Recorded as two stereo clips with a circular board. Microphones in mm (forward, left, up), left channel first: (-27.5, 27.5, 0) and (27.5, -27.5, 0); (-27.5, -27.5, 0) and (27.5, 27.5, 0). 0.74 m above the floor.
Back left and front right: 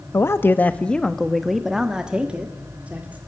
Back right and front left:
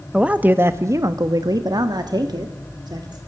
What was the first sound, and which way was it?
A man speaking, 115° left.